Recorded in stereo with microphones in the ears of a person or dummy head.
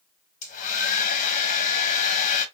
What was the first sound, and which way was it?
A hair dryer, 40° left (ahead or behind).